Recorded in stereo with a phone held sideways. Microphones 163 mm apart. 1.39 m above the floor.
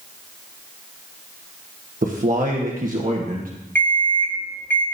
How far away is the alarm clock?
About 1.8 m.